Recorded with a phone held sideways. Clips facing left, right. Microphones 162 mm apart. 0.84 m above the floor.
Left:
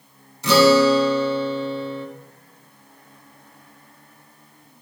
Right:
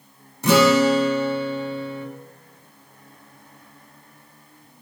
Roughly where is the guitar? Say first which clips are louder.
Left 2 dB; right.